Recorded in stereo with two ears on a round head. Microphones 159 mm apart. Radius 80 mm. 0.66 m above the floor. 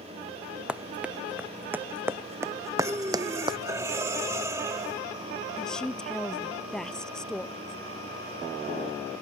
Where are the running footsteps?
5° right (ahead or behind); by 3.6 s 25° right (ahead or behind).